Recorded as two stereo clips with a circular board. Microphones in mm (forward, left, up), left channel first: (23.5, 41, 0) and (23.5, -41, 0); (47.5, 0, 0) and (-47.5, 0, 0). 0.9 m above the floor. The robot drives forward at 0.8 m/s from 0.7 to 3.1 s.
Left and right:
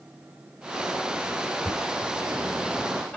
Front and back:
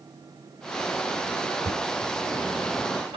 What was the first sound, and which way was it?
Knocking, 160° left.